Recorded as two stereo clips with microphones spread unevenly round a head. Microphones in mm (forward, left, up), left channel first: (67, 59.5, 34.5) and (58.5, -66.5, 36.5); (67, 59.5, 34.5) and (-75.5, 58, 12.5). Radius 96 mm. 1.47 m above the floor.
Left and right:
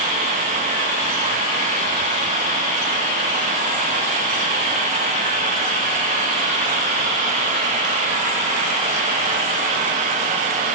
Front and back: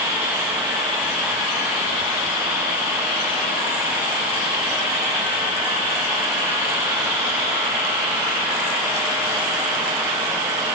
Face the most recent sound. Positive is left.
No sound to turn to.